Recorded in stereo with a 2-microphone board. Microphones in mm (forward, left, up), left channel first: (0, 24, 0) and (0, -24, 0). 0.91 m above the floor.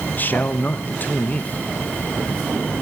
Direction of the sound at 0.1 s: 40° left (ahead or behind).